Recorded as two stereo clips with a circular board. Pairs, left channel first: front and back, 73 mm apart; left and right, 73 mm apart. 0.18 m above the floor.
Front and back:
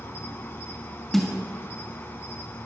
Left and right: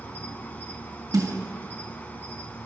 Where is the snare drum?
80° right, 3 m.